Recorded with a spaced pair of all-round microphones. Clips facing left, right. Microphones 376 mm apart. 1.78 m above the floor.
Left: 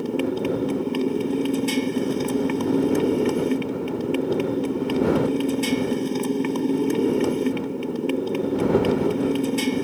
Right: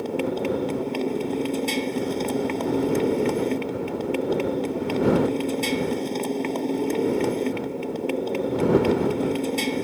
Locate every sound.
0.0 s a motorcycle: 20° left (ahead or behind)